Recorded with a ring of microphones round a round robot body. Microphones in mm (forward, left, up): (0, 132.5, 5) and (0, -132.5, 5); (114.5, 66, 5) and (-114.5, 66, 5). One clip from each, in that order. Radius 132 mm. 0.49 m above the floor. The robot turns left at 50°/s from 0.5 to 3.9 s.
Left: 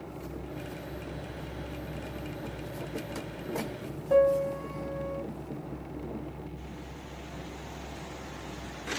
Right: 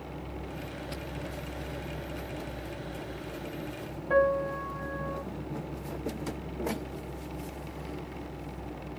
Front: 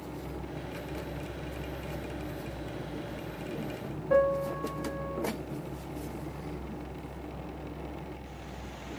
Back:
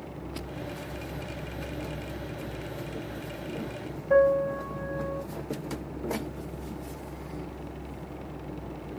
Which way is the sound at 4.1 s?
110° right.